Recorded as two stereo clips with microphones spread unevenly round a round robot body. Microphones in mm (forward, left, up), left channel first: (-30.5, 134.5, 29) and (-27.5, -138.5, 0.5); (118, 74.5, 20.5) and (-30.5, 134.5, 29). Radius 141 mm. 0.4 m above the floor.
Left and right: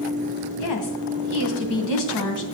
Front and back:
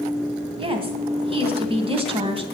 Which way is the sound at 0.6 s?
105° left.